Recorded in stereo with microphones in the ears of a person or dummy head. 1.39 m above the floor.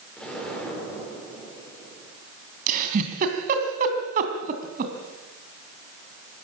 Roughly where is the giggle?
Right.